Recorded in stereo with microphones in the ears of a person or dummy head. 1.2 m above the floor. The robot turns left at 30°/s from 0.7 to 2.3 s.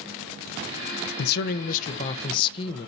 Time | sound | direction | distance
1.2 | a man speaking | 60° left | 0.9 m